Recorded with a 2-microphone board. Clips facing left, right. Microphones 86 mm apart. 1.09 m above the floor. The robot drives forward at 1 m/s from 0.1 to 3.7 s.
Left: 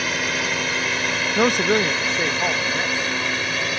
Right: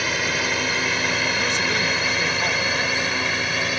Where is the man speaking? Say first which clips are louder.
Left 6 dB; 55° left (ahead or behind); by 3.2 s 15° left (ahead or behind).